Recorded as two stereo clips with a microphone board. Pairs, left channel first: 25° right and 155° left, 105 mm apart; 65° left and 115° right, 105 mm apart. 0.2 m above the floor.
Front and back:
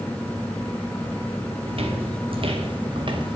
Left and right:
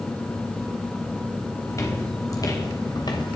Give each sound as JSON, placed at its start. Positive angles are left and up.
{"t": 1.7, "sound": "footsteps", "azimuth_deg": 130, "distance_m": 4.5}